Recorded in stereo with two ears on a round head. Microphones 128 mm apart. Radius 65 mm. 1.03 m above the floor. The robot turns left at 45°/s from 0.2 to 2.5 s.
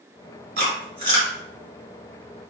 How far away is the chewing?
About 1.3 m.